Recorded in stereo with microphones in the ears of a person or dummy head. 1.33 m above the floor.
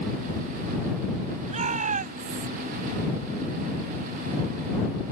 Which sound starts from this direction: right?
A shout, at 1.5 s.